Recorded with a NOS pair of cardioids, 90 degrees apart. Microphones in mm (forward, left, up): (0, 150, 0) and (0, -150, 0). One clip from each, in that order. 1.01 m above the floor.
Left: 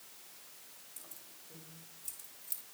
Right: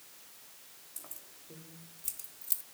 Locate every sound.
1.0 s keys jangling: 50° right, 3 m; by 2.6 s 45° right, 1.1 m